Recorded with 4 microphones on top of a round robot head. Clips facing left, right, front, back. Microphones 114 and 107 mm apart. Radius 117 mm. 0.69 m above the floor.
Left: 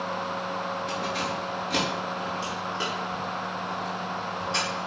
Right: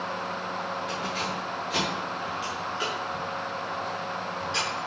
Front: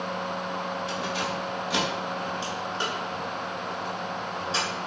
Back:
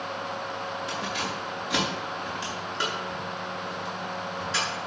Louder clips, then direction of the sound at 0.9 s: Left 2 dB, front 2 dB; 145° left.